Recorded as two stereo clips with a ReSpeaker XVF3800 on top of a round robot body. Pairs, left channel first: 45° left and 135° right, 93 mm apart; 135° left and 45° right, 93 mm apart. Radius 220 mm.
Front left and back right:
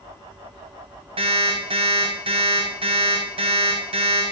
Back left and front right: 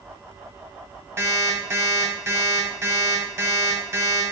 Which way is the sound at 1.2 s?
110° right.